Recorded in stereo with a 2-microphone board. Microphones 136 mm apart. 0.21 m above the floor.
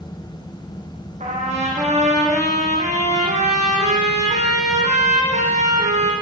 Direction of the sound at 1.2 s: 60° right (ahead or behind).